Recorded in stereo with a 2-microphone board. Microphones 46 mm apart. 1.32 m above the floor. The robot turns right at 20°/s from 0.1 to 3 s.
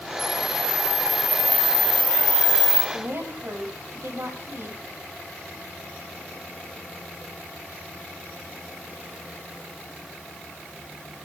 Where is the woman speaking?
70° right (ahead or behind), 6 m.